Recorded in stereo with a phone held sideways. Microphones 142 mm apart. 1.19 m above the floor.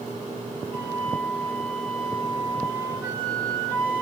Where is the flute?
20° left (ahead or behind), 1.5 m.